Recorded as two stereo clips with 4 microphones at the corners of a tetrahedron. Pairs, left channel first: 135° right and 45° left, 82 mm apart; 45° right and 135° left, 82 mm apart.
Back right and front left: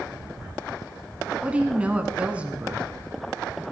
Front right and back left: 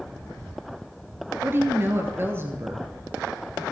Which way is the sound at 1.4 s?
105° left.